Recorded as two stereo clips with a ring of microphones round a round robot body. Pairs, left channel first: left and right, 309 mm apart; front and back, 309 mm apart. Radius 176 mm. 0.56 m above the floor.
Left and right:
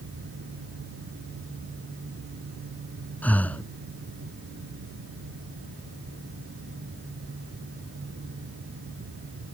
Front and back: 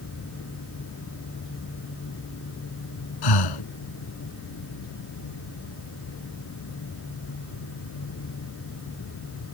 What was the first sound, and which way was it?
Breathing, 5° left.